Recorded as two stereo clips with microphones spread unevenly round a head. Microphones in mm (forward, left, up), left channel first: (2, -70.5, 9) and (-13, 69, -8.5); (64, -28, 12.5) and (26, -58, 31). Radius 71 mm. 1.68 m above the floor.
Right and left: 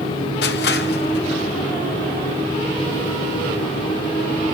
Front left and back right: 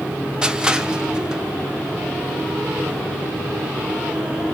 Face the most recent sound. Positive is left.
turn(degrees=-70)